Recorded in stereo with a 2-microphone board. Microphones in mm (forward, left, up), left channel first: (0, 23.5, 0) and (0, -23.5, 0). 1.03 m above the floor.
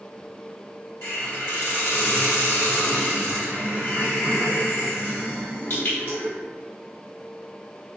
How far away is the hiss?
About 2.0 m.